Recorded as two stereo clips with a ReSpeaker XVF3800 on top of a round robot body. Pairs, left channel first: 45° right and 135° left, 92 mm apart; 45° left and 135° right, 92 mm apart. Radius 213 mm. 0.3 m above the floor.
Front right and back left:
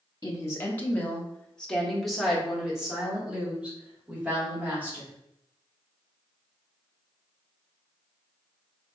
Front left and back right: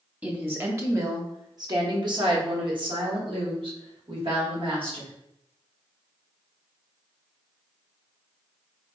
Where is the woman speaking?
75° right, 1.2 m; by 5.1 s 155° right, 2.5 m.